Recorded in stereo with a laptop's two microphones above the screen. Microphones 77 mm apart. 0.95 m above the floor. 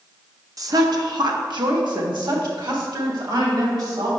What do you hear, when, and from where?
0.6 s a woman speaking: 50° right (ahead or behind), 0.6 m; by 4.1 s 75° right (ahead or behind), 2.5 m